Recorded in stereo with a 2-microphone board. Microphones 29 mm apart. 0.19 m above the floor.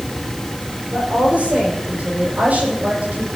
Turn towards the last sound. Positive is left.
turn(degrees=-70)  # may be behind; listen again after turning